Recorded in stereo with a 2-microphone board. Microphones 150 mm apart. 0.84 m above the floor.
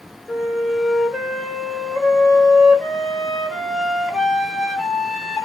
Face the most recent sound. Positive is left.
turn(degrees=5)  # may be behind; listen again after turning